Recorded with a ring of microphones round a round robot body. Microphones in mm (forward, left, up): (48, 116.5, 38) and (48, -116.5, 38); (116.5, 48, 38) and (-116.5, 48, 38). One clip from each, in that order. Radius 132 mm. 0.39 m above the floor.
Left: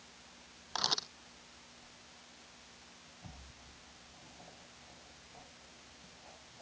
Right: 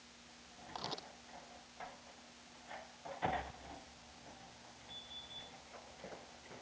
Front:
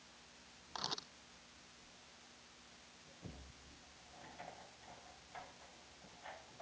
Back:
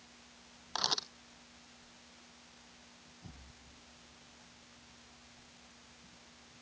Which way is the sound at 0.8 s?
140° left.